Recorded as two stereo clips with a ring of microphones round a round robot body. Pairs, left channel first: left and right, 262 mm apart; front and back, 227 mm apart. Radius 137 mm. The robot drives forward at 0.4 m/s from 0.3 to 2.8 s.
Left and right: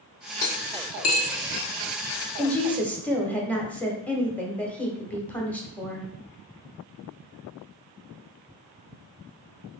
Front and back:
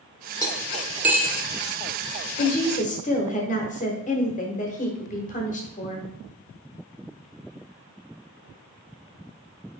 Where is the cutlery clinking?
75° left, 0.8 m; by 1.4 s 110° left, 0.8 m.